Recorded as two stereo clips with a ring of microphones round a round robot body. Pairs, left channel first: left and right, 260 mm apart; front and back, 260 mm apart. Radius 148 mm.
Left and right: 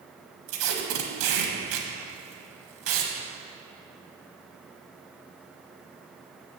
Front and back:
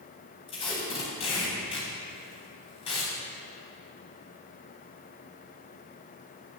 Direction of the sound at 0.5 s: 70° right.